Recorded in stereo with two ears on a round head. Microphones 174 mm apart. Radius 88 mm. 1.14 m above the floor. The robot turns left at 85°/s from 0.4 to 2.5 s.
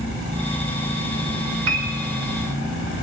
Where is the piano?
60° right (ahead or behind), 1.2 m; by 2.0 s 80° right, 1.2 m.